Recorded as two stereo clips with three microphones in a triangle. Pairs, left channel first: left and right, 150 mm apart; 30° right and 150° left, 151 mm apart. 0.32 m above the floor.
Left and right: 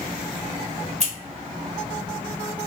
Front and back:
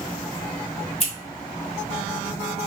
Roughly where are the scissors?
Ahead right.